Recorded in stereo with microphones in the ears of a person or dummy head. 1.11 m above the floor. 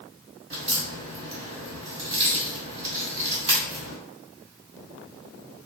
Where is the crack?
65° right (ahead or behind), 1.9 m.